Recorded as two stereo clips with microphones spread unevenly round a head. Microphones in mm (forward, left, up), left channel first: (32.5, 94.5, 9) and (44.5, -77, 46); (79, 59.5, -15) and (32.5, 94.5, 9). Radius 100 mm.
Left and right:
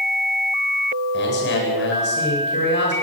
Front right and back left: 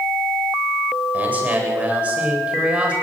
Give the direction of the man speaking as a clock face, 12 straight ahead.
9 o'clock.